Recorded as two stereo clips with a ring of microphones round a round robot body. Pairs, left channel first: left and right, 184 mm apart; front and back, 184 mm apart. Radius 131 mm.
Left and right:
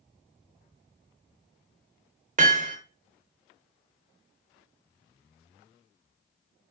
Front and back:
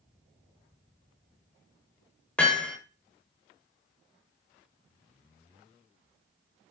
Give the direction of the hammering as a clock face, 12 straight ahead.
3 o'clock.